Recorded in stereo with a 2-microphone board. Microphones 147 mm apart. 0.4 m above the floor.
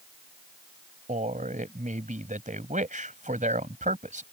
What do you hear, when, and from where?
1.1 s a man speaking: 60° right (ahead or behind)